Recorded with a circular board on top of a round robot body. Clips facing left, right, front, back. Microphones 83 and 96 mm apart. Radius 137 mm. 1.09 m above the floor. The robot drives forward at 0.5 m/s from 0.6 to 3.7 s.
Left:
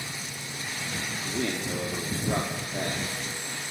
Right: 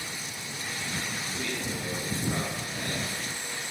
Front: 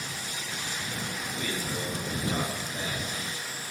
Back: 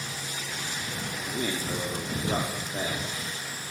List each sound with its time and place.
1.2 s a man speaking: 115° left, 3.5 m; by 3.6 s 130° left, 4.5 m